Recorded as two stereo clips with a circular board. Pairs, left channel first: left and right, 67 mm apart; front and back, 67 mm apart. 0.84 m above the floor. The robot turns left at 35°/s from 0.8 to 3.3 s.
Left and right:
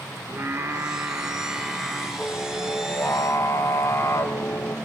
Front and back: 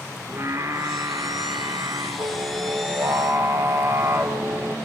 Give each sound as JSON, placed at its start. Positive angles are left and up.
{"t": 0.3, "sound": "singing", "azimuth_deg": -135, "distance_m": 2.0}